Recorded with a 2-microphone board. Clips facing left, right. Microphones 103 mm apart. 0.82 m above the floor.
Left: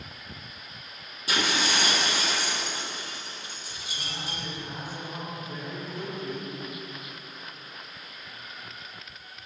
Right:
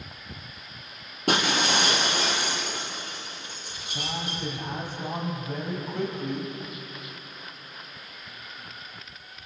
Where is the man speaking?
70° right (ahead or behind), 5 m.